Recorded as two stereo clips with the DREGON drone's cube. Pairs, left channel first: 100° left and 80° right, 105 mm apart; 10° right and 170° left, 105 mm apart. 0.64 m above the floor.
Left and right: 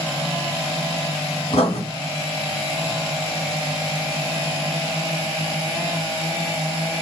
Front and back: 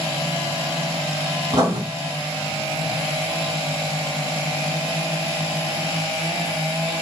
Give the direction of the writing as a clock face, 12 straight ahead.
8 o'clock.